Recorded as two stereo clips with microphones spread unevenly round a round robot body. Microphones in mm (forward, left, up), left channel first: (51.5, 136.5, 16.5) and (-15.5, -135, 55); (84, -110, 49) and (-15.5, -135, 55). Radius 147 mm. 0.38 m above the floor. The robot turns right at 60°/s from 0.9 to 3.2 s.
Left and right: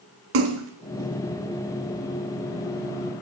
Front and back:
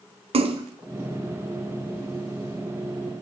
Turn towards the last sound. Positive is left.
turn(degrees=-10)